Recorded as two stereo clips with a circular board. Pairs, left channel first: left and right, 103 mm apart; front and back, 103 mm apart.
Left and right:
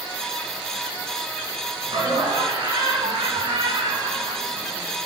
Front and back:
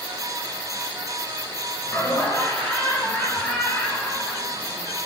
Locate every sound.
1.8 s laughter: 70° right, 6 m; by 5.1 s 95° right, 5.5 m